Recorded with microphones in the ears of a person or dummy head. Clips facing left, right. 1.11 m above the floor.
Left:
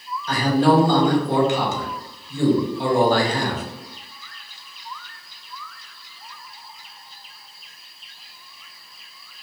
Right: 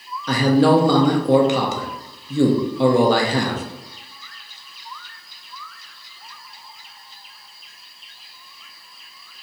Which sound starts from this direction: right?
A man speaking, at 0.3 s.